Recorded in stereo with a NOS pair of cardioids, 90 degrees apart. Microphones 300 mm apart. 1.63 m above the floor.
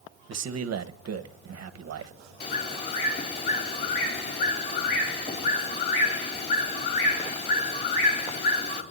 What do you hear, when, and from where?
0.3 s a man speaking: 60° right, 1.4 m
2.4 s a bird: 35° left, 3.5 m